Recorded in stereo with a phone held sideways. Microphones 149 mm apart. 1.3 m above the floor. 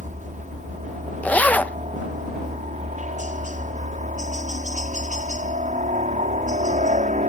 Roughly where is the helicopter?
Right.